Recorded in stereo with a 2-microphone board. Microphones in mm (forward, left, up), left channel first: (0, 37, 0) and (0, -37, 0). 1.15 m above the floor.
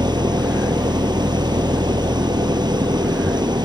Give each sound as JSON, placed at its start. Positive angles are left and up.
{"t": 0.0, "sound": "an engine running", "side_deg": -80}